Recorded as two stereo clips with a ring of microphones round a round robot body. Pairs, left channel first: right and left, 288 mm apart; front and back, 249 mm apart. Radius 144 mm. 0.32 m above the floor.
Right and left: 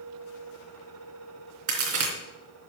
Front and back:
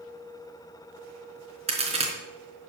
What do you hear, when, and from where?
1.7 s a crack: 115° left, 3.5 m